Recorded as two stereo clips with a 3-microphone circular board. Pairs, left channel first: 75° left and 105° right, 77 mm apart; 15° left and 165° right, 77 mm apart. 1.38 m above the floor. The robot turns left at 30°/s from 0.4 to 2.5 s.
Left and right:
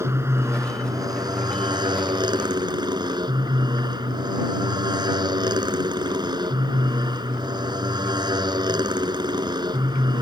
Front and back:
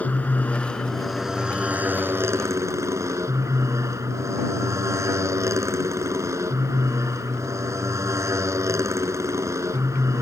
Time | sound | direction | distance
0.0 | a motorcycle | 55° right | ?